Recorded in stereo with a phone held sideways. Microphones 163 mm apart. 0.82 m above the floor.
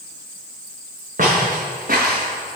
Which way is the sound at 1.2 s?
55° right (ahead or behind).